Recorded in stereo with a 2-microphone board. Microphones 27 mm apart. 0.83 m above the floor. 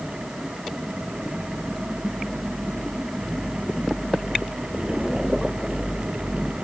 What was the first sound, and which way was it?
Only background noise.